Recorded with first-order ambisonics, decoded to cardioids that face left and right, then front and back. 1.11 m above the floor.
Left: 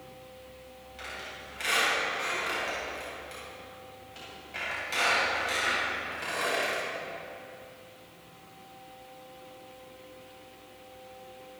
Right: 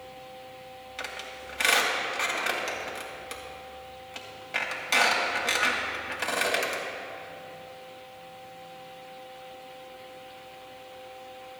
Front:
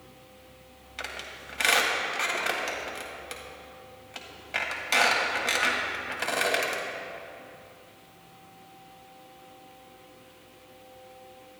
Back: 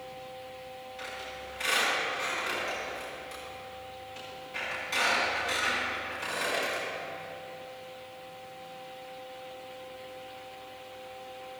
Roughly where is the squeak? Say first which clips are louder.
Right 3 dB, front 4 dB; ahead right.